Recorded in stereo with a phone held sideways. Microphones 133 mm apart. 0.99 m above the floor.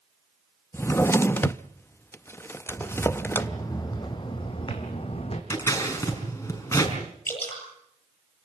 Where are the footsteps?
10° left (ahead or behind), 3 m; by 5.4 s 50° left (ahead or behind), 4 m.